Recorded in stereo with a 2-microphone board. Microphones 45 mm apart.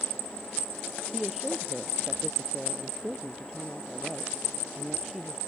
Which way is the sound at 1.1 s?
5° right (ahead or behind).